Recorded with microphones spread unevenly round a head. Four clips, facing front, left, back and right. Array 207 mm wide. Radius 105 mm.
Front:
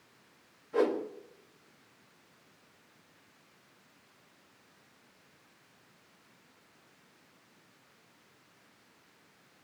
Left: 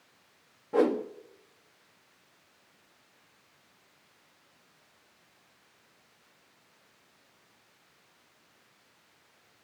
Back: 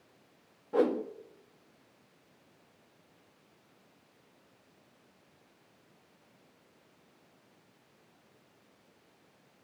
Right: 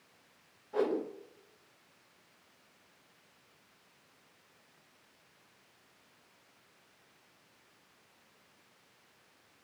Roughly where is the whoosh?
Behind left.